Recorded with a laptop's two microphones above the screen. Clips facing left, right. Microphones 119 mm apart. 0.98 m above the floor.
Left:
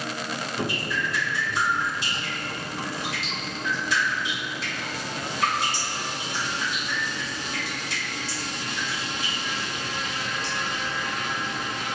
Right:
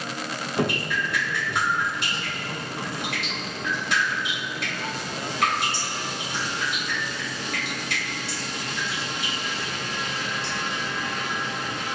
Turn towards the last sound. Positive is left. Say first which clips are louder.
# right 5 dB
turn(degrees=-55)  # may be behind; listen again after turning